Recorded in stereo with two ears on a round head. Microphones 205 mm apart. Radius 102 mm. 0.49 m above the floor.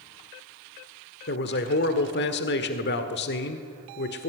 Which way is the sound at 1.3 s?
50° left (ahead or behind).